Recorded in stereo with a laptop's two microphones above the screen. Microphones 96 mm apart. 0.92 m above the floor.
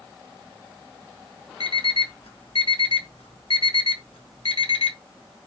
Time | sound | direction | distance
1.6 | an alarm clock | 70° left (ahead or behind) | 1.2 m